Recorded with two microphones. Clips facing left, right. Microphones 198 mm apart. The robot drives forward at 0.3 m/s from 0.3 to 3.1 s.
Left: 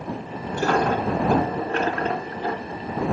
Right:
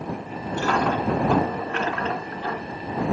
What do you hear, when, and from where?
0.5 s a dropped coin: 40° left (ahead or behind), 1.8 m; by 2.8 s 30° left (ahead or behind), 2.5 m